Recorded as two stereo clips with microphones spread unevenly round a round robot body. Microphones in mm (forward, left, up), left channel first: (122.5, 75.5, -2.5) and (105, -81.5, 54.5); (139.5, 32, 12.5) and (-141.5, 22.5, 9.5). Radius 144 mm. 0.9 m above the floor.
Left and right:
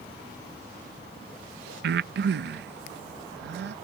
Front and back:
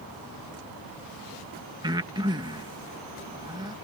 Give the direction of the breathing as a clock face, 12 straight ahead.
4 o'clock.